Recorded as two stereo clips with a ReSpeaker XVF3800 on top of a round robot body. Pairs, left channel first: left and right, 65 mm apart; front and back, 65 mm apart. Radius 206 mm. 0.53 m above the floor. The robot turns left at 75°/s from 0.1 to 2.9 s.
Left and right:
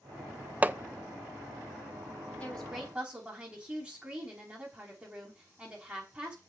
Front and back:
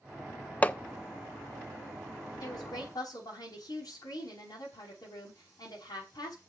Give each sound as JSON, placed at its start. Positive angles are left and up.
{"t": 0.6, "sound": "hammering", "azimuth_deg": -45, "distance_m": 0.9}
{"t": 2.4, "sound": "a woman speaking", "azimuth_deg": 25, "distance_m": 6.0}